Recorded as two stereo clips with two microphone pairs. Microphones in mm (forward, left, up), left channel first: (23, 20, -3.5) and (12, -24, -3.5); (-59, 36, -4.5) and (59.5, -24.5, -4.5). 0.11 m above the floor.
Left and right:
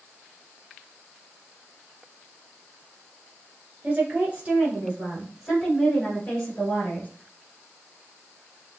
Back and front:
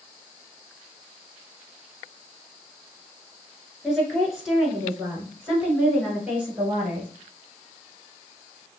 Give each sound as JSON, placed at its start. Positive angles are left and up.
{"t": 3.8, "sound": "a woman speaking", "azimuth_deg": -115, "distance_m": 1.7}